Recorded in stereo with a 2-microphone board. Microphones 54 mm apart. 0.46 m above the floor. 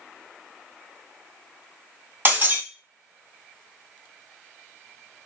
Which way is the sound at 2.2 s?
40° right (ahead or behind).